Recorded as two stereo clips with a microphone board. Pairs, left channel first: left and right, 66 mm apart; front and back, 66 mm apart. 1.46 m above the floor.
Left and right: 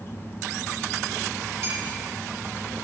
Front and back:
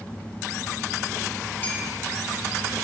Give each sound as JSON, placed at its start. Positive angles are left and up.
{"t": 1.6, "sound": "a clink", "azimuth_deg": -55, "distance_m": 1.7}